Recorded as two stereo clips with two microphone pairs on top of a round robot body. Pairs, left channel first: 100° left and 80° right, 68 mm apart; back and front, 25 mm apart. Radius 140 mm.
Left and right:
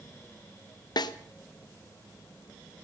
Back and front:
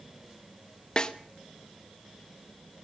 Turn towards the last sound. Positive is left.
turn(degrees=120)